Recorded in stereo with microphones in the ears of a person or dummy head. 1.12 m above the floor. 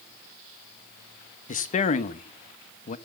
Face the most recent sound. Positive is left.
turn(degrees=35)  # may be behind; listen again after turning